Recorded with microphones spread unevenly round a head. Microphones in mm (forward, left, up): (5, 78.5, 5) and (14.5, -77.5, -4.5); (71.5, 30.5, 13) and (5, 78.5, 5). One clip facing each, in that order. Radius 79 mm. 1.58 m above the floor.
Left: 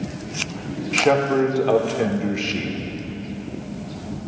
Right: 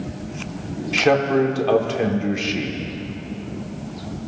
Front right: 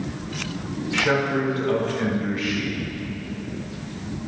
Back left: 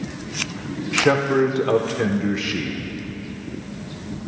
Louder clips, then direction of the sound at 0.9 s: Right 1 dB, back left 4 dB; 175° right.